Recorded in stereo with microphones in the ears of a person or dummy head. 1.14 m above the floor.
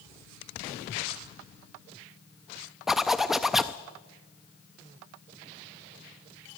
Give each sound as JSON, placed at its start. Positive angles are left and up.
{"t": 2.9, "sound": "a zipper", "side_deg": 0, "distance_m": 0.5}